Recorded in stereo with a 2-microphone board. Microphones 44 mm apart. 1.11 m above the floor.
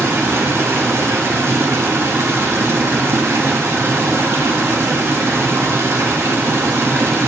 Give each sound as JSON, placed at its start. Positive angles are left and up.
{"t": 0.0, "sound": "running water", "side_deg": -85, "distance_m": 1.4}